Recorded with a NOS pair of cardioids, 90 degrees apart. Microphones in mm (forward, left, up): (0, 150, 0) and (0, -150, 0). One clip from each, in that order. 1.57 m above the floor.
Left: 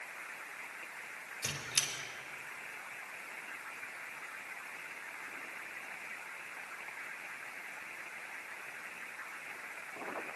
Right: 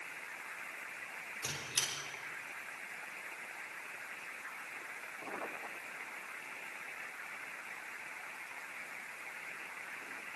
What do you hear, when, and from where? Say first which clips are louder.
1.4 s a squeak: left 2 dB; 15° left, 4.5 m